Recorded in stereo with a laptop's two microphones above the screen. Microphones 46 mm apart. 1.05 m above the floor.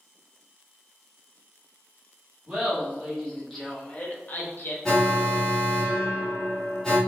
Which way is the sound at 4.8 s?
10° left (ahead or behind).